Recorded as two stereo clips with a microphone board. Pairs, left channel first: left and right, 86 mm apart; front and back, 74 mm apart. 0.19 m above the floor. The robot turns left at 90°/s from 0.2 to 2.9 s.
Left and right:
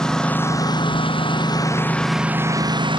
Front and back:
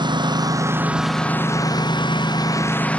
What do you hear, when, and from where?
0.0 s a lawn mower: 170° left; by 3.0 s 70° right